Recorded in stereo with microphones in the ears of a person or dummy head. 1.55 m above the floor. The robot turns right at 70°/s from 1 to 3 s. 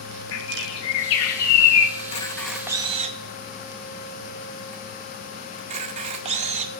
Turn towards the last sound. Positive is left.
turn(degrees=-35)  # may be behind; listen again after turning